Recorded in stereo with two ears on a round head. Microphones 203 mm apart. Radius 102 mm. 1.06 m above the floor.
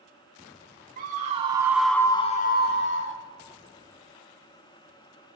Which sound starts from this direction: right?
A scream, at 1.0 s.